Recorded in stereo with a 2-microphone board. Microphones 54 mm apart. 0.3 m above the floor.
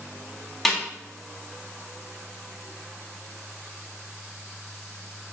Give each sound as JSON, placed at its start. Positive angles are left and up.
{"t": 0.7, "sound": "a snare drum", "side_deg": 0, "distance_m": 2.0}